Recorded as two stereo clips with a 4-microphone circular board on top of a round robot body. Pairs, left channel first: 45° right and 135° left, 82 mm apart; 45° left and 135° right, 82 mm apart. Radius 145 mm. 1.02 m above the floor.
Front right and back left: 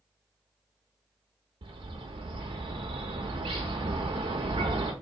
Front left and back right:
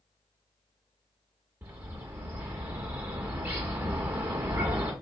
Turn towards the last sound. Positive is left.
turn(degrees=155)